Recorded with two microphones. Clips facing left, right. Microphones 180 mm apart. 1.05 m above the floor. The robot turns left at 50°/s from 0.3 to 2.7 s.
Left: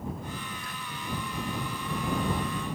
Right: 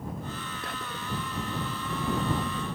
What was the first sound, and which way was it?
Whispering, 75° right (ahead or behind).